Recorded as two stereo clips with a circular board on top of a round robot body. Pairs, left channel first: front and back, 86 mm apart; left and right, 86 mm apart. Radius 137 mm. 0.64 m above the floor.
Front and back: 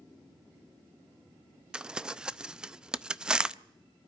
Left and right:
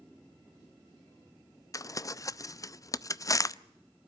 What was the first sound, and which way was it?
Crumpling, 105° left.